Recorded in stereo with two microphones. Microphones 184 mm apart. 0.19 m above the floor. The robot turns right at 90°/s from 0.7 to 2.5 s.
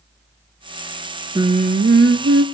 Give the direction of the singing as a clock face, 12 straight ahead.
5 o'clock.